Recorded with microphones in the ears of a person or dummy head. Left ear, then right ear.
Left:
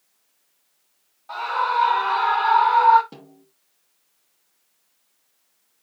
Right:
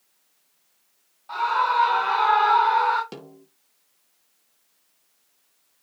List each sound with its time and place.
1.3 s a scream: 10° left (ahead or behind), 3.5 m; by 3.0 s 15° left (ahead or behind), 2.5 m
3.1 s a snare drum: 70° right (ahead or behind), 2.5 m